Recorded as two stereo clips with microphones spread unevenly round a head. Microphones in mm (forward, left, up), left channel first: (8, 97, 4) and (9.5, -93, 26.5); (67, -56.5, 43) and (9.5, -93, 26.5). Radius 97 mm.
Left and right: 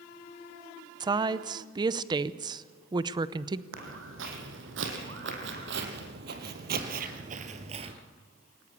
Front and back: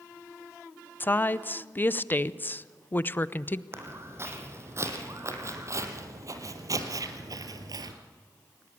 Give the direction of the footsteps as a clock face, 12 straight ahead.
3 o'clock.